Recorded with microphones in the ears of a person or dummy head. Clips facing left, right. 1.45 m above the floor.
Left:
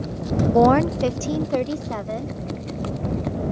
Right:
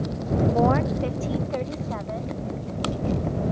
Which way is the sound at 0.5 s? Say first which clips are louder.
Left 9 dB; 50° left (ahead or behind).